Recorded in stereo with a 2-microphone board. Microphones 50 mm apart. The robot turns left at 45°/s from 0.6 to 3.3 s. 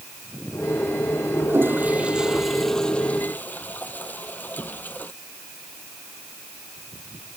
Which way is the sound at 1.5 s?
135° right.